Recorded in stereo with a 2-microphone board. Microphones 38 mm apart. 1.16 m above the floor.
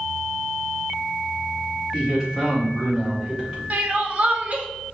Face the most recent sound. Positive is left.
turn(degrees=-40)  # may be behind; listen again after turning